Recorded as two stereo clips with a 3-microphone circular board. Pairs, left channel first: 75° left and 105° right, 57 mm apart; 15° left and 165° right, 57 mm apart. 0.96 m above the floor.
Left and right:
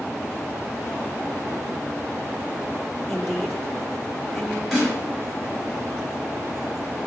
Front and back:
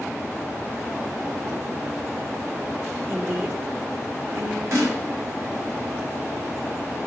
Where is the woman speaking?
160° left, 2 m.